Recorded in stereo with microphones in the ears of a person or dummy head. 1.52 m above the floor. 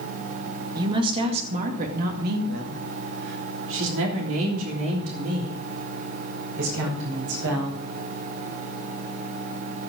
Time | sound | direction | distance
0.8 | a woman speaking | 20° right (ahead or behind) | 2 m